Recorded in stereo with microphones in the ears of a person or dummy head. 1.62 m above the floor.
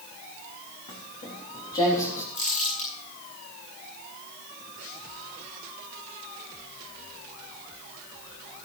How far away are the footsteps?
About 3.5 m.